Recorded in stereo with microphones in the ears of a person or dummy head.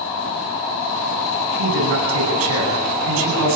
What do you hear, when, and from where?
1.6 s a man speaking: 80° right, 9 m